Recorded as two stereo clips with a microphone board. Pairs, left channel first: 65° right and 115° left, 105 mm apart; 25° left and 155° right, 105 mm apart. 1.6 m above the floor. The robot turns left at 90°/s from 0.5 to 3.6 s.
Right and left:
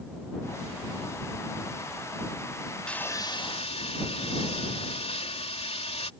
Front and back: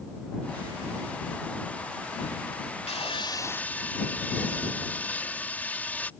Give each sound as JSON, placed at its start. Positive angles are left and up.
{"t": 2.9, "sound": "sawing", "azimuth_deg": 15}